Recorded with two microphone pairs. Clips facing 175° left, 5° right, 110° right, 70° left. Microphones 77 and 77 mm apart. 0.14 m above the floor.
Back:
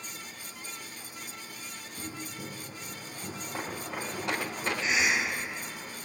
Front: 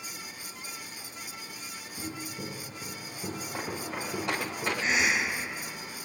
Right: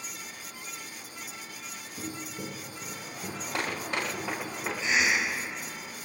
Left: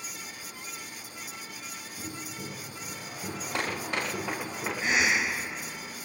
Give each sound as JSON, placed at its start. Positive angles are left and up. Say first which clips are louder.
{"t": 2.0, "sound": "footsteps", "louder": "front 2 dB, right 3 dB", "azimuth_deg": -80, "distance_m": 1.5}
{"t": 4.8, "sound": "a cough", "louder": "front 1 dB, even", "azimuth_deg": 40, "distance_m": 2.5}